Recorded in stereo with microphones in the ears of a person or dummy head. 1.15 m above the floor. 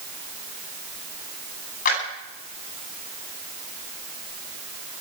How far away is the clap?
About 9.5 m.